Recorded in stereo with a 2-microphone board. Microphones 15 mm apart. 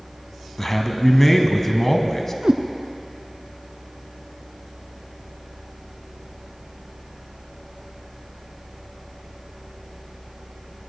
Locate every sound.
0.6 s a man speaking: 20° left (ahead or behind), 1.2 m
2.4 s a cat meowing: 75° right (ahead or behind), 0.6 m